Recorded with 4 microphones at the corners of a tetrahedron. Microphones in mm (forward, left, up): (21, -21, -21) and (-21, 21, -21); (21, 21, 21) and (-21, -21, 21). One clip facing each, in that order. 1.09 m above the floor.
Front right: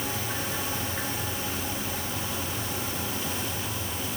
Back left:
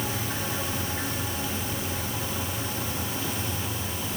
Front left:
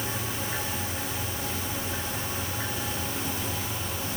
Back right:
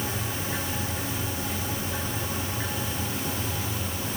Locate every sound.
Only background noise.